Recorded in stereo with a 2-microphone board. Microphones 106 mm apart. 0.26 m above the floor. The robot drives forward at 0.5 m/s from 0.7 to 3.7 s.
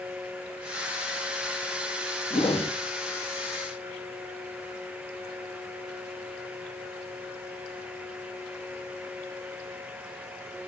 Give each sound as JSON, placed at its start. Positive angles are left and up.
{"t": 2.3, "sound": "a whoosh", "side_deg": 65, "distance_m": 4.0}